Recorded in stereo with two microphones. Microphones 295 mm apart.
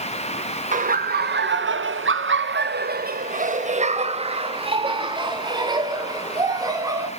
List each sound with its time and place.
0.7 s laughter: 25° right (ahead or behind), 0.8 m; by 7.1 s 10° right (ahead or behind), 3 m